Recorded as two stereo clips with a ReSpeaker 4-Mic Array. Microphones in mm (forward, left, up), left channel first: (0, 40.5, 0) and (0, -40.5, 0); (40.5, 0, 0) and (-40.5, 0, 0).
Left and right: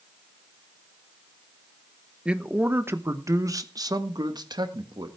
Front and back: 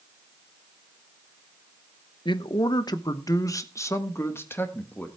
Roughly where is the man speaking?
Ahead.